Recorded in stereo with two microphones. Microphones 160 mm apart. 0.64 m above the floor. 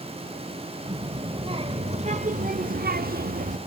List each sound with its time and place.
0.8 s a child speaking: 30° right (ahead or behind), 2 m; by 3.6 s 60° right (ahead or behind), 0.9 m